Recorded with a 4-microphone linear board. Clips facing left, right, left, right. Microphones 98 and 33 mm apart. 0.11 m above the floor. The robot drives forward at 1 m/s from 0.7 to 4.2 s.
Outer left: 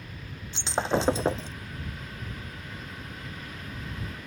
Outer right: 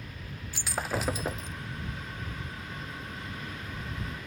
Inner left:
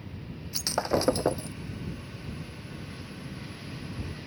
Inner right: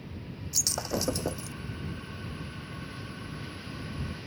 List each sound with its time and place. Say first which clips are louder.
0.5 s breaking glass: outer left 6 dB, inner left 5 dB; 25° left (ahead or behind); by 1.6 s 35° left (ahead or behind)